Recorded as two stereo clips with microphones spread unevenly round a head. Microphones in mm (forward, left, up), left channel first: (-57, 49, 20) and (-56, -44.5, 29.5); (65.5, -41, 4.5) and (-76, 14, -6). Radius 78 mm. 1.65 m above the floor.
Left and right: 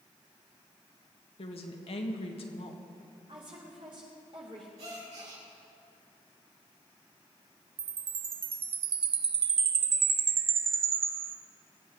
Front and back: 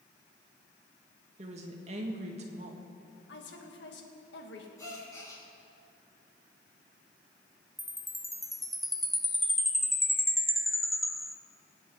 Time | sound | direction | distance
1.4 | a woman speaking | 105° left | 1.7 m
3.3 | a woman speaking | 30° right | 2 m
4.8 | a gasp | 90° right | 5 m
7.8 | a chime | 110° right | 0.7 m